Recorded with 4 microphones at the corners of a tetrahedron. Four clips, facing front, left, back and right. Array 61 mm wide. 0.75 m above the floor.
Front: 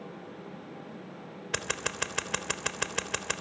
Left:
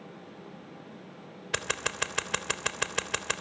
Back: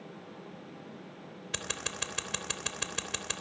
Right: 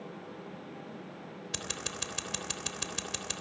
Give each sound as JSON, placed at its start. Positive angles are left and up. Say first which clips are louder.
{"t": 1.5, "sound": "scissors", "louder": "left 10 dB, front 5 dB", "azimuth_deg": 55, "distance_m": 3.0}